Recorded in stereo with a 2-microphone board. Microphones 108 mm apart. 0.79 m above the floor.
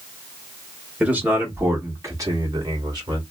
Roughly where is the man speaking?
Centre.